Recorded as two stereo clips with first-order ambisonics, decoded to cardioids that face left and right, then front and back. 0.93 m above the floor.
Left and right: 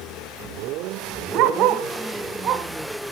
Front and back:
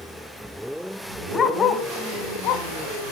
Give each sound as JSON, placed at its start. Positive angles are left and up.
{"t": 1.3, "sound": "a dog barking", "azimuth_deg": -65, "distance_m": 1.2}